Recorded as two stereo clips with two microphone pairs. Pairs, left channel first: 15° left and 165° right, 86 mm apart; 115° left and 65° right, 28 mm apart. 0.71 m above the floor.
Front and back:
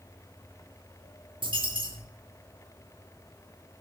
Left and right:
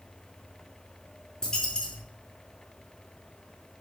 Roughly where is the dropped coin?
Behind.